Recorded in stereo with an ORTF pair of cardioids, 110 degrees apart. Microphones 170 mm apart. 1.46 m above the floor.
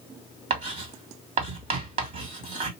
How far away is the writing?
About 2.5 m.